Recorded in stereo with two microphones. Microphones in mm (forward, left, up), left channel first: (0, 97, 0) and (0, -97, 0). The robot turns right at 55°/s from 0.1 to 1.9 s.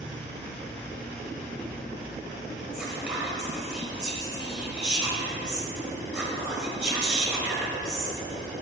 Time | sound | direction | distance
2.7 | whispering | 5° right (ahead or behind) | 1.6 m